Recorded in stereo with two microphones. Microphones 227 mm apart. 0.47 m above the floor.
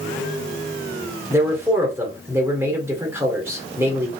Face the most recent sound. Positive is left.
turn(degrees=-10)  # may be behind; listen again after turning